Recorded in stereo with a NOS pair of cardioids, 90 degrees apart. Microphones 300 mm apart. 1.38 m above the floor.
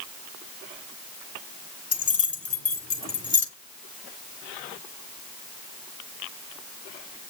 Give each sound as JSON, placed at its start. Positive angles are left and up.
{"t": 1.9, "sound": "keys jangling", "azimuth_deg": 50, "distance_m": 3.5}